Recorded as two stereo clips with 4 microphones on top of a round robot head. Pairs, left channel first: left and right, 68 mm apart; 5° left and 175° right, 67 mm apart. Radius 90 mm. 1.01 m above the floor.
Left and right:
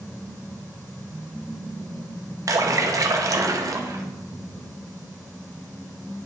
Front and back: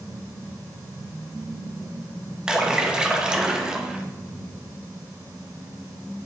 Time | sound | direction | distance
2.5 | a splash | 105° right | 0.9 m